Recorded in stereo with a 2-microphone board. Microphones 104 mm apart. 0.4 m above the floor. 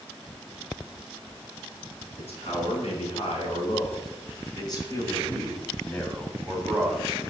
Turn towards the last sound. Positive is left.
turn(degrees=-10)  # may be behind; listen again after turning